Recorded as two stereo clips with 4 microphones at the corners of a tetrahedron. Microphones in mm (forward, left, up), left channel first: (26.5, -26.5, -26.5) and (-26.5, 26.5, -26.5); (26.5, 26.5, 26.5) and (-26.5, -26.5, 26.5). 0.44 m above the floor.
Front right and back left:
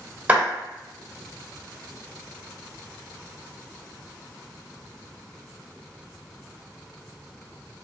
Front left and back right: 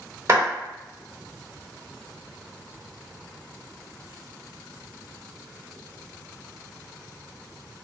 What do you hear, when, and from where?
0.3 s a clap: 170° right, 1.2 m